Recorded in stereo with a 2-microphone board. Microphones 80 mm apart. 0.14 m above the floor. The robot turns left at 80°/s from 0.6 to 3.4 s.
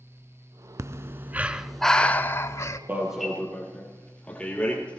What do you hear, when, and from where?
0.8 s breathing: 100° right, 0.5 m; by 2.8 s 100° left, 0.5 m
2.9 s an alarm: 25° right (ahead or behind), 3.5 m; by 5.0 s 15° left (ahead or behind), 3.5 m